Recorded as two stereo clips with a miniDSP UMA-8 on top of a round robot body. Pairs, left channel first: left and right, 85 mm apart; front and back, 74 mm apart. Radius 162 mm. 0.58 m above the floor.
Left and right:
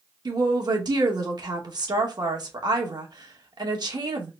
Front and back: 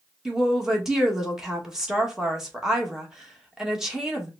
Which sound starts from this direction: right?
A woman speaking, at 0.2 s.